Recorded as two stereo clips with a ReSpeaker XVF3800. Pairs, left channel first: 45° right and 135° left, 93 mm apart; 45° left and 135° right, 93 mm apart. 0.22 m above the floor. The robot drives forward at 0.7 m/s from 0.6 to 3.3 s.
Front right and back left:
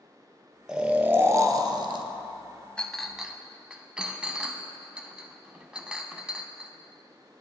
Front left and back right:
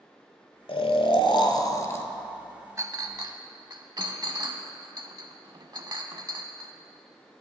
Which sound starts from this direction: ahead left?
Snoring, at 0.7 s.